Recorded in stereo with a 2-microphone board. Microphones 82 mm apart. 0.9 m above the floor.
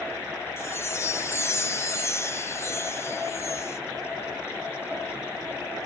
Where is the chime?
30° left (ahead or behind), 0.7 m.